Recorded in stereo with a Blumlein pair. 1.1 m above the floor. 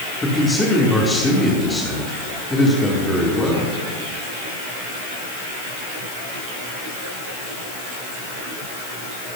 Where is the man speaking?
10° left, 2.5 m.